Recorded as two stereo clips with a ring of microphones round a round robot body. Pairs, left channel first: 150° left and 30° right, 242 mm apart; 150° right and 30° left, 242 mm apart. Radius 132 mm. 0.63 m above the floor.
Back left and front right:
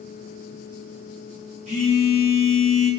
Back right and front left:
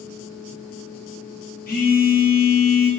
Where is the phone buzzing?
95° right, 0.8 m.